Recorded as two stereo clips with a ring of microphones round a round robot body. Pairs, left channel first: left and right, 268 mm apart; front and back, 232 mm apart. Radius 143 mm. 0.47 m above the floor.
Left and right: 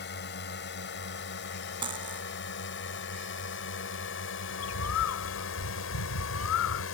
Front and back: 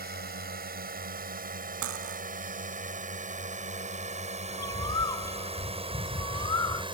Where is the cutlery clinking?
160° right.